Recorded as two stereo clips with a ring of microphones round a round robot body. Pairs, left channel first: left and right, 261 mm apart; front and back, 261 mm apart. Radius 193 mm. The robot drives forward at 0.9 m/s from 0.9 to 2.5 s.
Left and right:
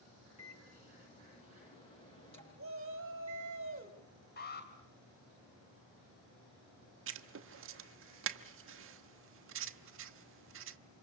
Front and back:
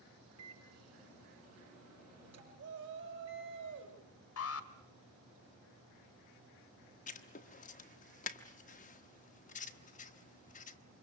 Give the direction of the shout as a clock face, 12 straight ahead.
4 o'clock.